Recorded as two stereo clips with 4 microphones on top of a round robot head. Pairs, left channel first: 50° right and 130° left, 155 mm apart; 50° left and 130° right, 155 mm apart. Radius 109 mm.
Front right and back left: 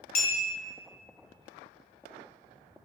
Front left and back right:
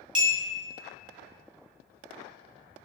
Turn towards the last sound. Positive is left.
turn(degrees=-65)